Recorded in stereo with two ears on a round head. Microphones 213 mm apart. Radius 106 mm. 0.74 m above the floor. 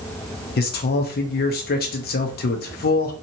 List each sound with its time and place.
0.6 s a man speaking: 40° left (ahead or behind), 0.5 m